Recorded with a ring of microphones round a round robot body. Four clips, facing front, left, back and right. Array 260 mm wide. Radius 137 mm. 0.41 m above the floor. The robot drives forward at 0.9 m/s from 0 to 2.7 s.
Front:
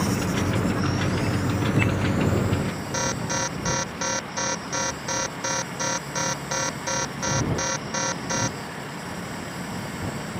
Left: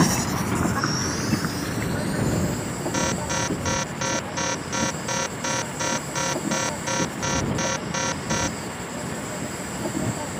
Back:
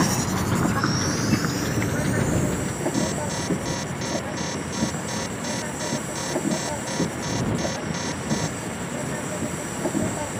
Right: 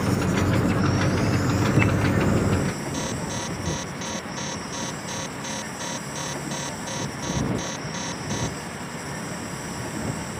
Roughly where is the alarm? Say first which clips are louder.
Left 4 dB, back 2 dB; ahead left.